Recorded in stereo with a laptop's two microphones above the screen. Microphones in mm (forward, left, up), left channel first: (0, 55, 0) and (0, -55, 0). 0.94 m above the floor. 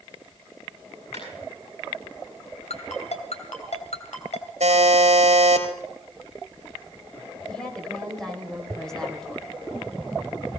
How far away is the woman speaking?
About 5 m.